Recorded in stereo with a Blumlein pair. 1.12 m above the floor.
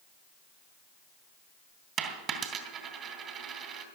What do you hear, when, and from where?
2.0 s a dropped coin: 30° right, 2.5 m